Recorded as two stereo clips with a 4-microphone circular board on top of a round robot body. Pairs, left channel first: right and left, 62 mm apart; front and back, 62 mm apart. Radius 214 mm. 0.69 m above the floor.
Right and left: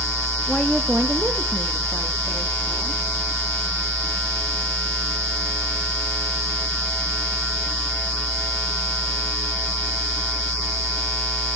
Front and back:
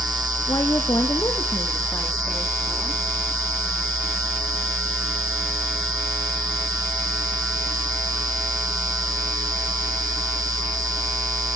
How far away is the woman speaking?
About 1.2 m.